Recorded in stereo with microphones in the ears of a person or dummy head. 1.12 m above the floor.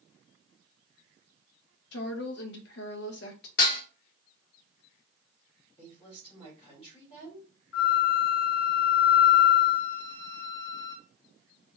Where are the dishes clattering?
50° left (ahead or behind), 1.4 m.